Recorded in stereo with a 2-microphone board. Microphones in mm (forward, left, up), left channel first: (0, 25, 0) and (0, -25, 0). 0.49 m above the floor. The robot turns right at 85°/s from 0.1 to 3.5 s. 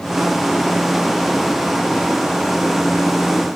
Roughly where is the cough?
No cough in this recording.